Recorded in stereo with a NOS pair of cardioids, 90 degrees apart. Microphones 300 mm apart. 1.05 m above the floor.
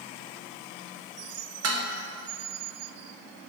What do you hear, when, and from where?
1.6 s dishes clattering: 55° right, 1.0 m